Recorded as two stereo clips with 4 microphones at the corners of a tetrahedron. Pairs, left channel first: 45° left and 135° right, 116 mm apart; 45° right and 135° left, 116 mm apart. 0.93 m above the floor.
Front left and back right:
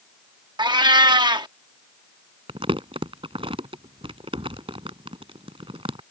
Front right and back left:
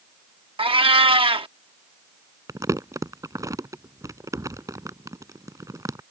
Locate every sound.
0.6 s a cat meowing: 175° left
2.5 s crumpling: 165° right